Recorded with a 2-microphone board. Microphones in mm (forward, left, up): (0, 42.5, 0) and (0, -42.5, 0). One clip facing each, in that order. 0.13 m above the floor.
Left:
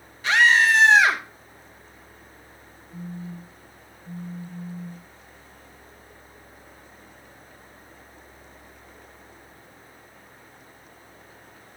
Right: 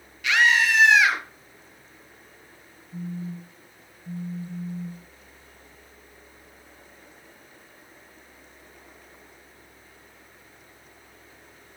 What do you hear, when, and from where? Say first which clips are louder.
0.2 s a scream: left 3 dB; 35° left (ahead or behind), 2.5 m
2.9 s a phone buzzing: right 3 dB; 30° right (ahead or behind), 1.6 m